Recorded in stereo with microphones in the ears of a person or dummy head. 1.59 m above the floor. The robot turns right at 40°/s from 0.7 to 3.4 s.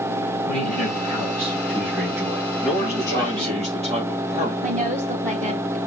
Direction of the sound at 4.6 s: 40° right (ahead or behind).